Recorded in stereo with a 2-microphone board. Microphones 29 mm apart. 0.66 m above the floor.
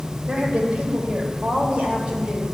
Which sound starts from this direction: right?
A woman speaking, at 0.3 s.